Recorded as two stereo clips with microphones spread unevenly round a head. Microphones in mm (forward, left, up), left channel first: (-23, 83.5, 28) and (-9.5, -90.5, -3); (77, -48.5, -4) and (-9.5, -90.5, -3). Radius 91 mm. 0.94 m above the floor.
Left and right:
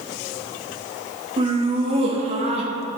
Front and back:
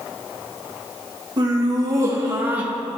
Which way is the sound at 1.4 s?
125° right.